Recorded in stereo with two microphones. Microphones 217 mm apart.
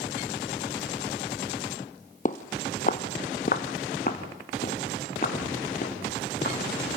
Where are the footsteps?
40° left (ahead or behind), 1.0 m.